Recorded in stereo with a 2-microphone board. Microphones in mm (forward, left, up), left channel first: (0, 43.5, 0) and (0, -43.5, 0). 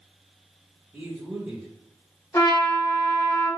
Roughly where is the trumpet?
Left.